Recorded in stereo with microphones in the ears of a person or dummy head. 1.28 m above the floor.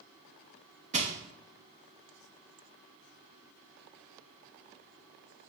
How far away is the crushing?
About 0.7 m.